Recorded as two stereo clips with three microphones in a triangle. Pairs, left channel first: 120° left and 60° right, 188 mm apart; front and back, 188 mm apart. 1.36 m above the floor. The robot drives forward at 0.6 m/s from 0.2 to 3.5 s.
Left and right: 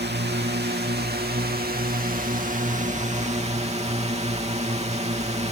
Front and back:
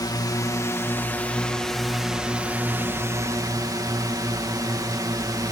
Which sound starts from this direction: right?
A drone, at 0.0 s.